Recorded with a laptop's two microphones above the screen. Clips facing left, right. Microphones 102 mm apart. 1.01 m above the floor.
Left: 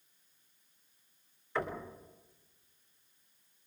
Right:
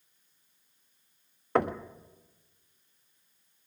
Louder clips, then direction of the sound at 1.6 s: Right 9 dB; 60° right (ahead or behind).